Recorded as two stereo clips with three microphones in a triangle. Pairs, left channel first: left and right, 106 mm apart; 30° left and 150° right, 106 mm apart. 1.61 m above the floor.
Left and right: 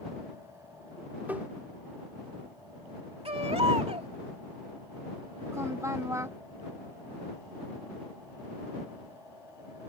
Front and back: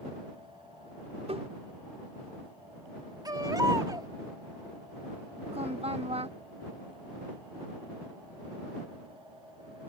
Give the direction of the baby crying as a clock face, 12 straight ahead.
3 o'clock.